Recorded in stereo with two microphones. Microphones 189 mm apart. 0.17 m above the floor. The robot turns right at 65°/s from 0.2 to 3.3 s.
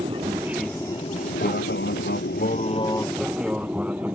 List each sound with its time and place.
0.0 s an aircraft: 30° right (ahead or behind); by 4.2 s 10° right (ahead or behind)